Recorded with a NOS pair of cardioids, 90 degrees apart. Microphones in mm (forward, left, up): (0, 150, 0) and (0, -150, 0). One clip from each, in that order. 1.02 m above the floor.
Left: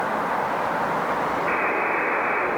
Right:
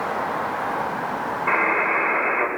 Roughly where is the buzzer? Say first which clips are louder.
Right 7 dB; ahead right.